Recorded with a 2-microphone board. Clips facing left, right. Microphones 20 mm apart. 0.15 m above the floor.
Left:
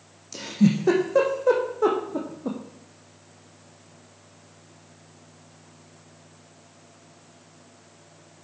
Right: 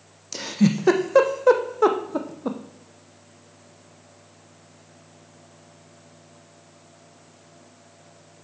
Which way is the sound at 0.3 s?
35° right (ahead or behind).